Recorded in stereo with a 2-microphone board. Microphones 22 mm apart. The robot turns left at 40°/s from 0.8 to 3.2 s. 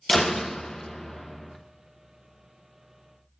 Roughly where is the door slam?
Ahead left.